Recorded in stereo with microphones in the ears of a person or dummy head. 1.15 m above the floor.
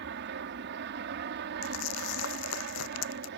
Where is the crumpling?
75° left (ahead or behind).